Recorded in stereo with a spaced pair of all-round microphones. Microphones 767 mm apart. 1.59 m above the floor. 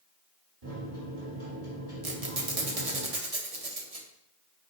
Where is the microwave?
50° right (ahead or behind), 3.5 m.